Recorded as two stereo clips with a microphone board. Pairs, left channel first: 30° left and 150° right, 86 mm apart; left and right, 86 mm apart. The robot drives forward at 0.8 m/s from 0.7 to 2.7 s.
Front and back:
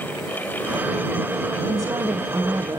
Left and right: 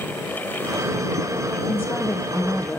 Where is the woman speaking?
160° left, 0.7 m; by 2.8 s 170° left, 1.5 m.